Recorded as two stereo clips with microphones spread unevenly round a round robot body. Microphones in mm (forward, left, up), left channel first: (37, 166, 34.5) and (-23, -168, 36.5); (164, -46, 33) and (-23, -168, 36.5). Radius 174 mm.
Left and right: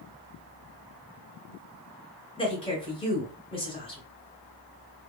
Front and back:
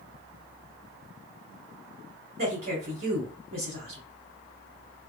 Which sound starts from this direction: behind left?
A woman speaking, at 2.4 s.